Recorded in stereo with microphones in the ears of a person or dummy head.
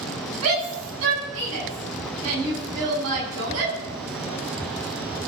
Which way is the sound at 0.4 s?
90° right.